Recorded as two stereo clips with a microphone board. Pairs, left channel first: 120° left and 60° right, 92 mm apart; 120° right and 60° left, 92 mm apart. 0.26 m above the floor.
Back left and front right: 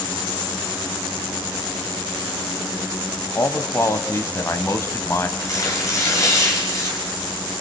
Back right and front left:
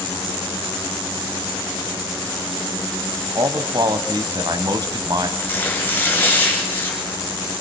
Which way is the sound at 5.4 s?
175° left.